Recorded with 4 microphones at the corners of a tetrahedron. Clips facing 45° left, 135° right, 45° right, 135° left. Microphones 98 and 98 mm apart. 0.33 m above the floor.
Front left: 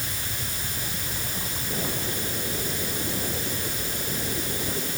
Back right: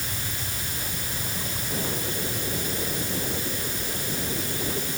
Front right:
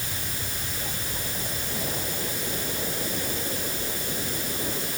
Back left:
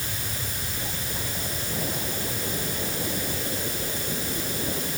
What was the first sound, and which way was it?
Only background noise.